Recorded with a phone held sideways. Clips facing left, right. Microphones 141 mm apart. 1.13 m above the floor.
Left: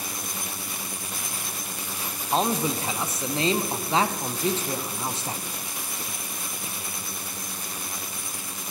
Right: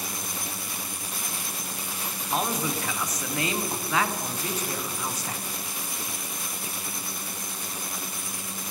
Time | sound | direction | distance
2.3 | a man speaking | 25° left (ahead or behind) | 0.6 m